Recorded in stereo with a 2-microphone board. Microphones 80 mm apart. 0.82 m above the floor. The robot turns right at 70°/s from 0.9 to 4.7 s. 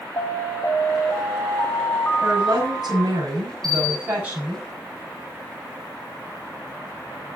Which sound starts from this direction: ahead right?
A bell, at 3.6 s.